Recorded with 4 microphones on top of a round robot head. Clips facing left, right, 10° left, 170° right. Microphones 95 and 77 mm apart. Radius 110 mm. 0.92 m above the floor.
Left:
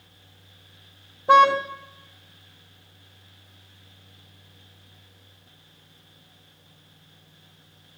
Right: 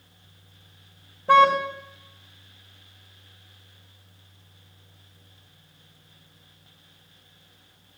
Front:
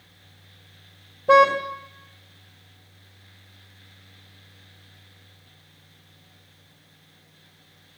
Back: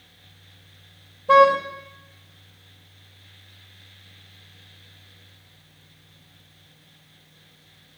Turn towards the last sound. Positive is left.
turn(degrees=15)